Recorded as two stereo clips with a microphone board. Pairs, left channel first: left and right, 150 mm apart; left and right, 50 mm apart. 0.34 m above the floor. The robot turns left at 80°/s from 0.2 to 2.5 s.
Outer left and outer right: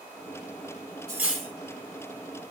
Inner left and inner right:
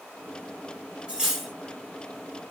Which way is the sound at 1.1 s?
155° right.